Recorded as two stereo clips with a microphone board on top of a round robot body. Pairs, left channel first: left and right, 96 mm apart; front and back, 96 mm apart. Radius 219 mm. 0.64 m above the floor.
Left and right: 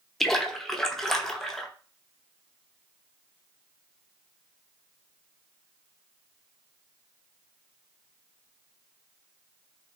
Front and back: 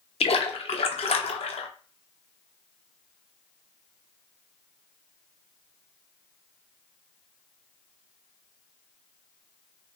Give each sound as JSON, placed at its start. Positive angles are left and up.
{"t": 0.2, "sound": "a splash", "azimuth_deg": 5, "distance_m": 0.6}